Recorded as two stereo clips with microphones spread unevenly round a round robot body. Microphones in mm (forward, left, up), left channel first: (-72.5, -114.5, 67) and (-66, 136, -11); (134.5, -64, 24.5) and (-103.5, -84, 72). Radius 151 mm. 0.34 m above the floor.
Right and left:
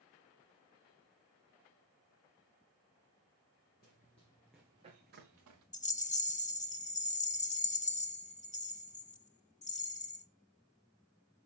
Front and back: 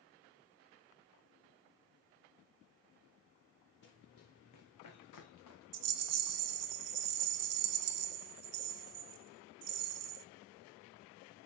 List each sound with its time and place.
3.8 s running footsteps: 35° right, 2 m; by 5.6 s 45° left, 2.5 m
5.7 s a rattle: 165° right, 1.0 m